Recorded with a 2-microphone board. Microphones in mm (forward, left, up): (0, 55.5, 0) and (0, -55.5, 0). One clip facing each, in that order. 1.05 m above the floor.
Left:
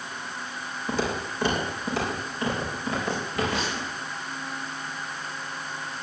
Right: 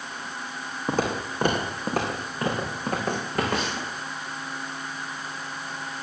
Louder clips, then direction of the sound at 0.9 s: Right 2 dB; 50° right (ahead or behind).